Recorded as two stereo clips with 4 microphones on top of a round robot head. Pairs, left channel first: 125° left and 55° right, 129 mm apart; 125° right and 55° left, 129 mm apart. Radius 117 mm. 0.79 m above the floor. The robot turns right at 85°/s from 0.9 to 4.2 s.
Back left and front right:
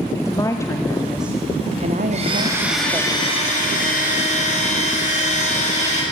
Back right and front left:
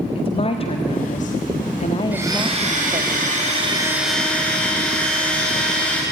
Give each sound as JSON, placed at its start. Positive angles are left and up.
{"t": 0.1, "sound": "a woman speaking", "azimuth_deg": -170, "distance_m": 1.3}
{"t": 2.1, "sound": "a blender", "azimuth_deg": -25, "distance_m": 6.0}